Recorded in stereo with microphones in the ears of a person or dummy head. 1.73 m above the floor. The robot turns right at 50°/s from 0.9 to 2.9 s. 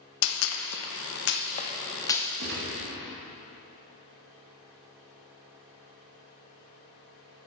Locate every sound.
0.2 s a gunshot: 75° left (ahead or behind), 0.7 m; by 2.3 s 5° left (ahead or behind), 0.7 m
2.4 s a gunshot: 65° right (ahead or behind), 1.8 m; by 2.8 s 50° right (ahead or behind), 1.8 m